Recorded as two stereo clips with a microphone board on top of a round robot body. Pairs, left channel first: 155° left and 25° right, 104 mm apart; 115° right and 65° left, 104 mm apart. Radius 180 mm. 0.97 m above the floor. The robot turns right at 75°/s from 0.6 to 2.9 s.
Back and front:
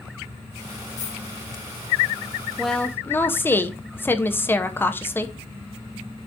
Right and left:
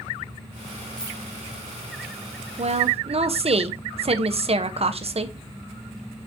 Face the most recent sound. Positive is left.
turn(degrees=90)